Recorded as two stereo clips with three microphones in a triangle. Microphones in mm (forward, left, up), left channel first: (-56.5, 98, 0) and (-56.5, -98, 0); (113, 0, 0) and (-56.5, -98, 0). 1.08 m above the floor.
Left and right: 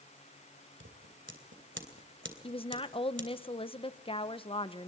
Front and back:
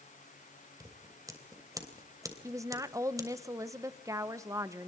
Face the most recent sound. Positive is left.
turn(degrees=145)